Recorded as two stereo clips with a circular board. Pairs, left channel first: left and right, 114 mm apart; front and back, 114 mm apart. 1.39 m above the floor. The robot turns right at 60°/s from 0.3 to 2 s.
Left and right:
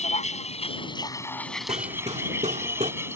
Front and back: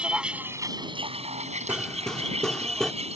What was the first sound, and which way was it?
A vehicle, 100° left.